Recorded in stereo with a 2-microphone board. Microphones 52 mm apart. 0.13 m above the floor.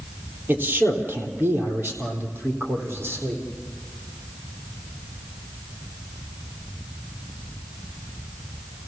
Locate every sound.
0.5 s a man speaking: 40° right (ahead or behind), 3 m